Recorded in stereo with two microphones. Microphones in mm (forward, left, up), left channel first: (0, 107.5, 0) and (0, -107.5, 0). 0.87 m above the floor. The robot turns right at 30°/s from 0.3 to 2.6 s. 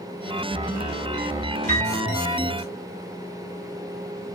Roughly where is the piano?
Right.